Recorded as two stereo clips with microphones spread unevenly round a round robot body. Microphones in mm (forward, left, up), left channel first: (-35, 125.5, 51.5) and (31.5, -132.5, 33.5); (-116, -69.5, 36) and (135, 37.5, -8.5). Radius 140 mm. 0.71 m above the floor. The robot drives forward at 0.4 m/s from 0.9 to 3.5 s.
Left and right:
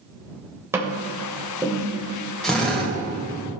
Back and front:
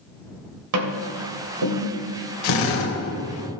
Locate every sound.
0.7 s tapping: 5° left, 2.5 m
2.4 s a drill: 165° right, 2 m; by 2.9 s 170° right, 2.5 m